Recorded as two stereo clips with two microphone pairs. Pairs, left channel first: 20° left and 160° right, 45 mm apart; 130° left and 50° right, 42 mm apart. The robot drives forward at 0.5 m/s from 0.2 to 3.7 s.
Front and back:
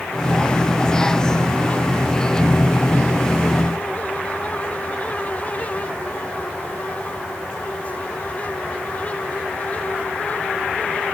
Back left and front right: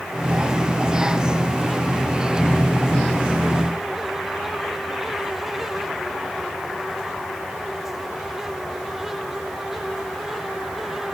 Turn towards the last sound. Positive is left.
No sound to turn to.